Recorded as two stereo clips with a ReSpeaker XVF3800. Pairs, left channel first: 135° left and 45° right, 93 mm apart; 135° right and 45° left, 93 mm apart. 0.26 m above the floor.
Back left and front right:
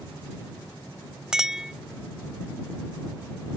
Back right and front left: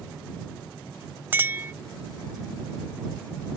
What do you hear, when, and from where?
1.3 s a clink: 30° left